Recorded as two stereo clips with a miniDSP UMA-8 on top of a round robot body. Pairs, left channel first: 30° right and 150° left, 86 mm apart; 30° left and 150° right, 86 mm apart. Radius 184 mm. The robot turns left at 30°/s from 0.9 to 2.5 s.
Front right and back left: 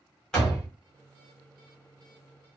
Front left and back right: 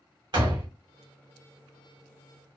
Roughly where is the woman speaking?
No woman speaking in this recording.